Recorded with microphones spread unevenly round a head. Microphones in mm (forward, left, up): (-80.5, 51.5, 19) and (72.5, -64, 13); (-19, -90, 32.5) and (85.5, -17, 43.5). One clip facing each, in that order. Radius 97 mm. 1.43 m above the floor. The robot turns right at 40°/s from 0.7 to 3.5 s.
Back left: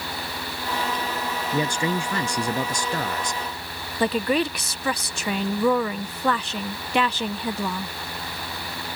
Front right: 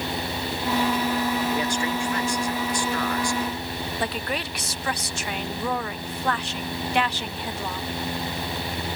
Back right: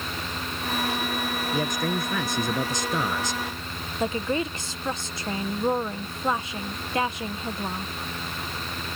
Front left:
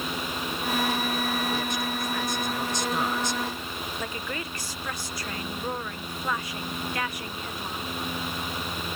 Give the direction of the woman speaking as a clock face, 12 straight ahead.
7 o'clock.